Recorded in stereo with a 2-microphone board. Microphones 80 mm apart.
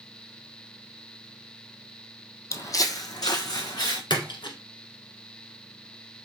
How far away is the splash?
About 1.5 m.